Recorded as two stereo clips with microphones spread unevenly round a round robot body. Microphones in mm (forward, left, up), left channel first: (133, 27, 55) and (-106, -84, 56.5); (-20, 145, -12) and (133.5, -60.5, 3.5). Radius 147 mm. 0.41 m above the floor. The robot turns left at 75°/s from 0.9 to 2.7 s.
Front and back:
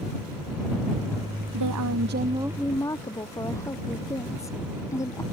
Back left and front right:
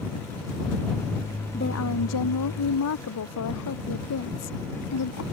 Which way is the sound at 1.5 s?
170° right.